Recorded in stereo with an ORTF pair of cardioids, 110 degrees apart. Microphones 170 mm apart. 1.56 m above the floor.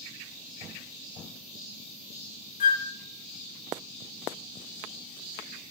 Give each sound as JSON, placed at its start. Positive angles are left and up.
{"t": 2.6, "sound": "a flute", "azimuth_deg": 50, "distance_m": 1.2}